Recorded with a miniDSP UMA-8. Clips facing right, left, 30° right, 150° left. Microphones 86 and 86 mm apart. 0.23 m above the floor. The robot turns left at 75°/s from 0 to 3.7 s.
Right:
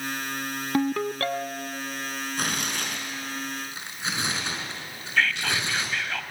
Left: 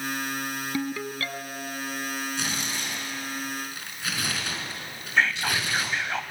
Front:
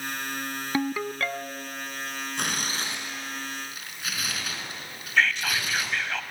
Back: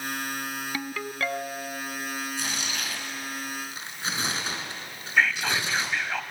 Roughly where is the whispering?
Left.